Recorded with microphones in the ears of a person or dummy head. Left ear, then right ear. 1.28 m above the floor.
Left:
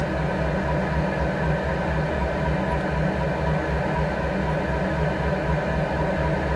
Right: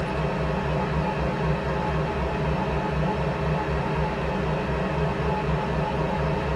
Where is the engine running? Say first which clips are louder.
Left 2 dB; 15° right (ahead or behind), 1.7 m.